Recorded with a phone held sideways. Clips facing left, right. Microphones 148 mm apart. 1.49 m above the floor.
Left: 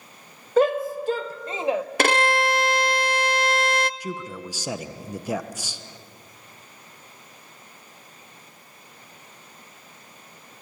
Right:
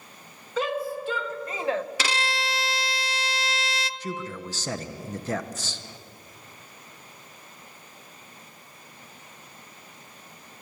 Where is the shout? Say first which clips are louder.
Left 8 dB; 50° left (ahead or behind), 1.8 m; by 1.9 s 10° left (ahead or behind), 0.9 m.